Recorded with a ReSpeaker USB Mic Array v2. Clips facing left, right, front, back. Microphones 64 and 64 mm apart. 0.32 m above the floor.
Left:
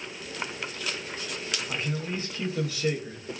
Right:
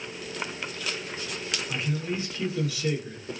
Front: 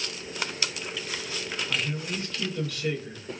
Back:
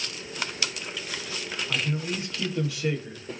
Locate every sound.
1.7 s a man speaking: 115° left, 1.2 m